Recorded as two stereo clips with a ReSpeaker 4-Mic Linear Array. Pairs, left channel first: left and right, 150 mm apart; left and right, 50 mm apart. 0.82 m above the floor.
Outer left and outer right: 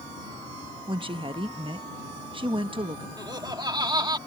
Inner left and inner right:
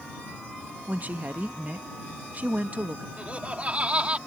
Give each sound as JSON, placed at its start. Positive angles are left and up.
{"t": 0.9, "sound": "a woman speaking", "side_deg": -35}
{"t": 3.2, "sound": "laughter", "side_deg": -30}